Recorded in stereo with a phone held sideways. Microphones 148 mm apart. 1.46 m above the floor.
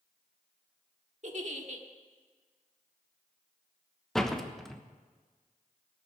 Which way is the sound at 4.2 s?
Centre (ahead or behind).